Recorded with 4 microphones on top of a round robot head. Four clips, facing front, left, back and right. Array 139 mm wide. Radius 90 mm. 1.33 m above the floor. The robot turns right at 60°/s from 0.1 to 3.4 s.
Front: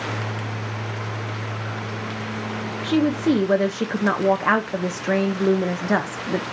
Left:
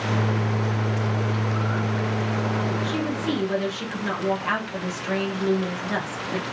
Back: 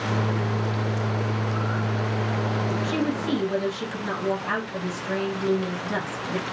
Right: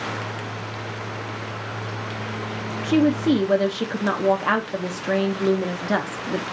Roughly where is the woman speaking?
Ahead right.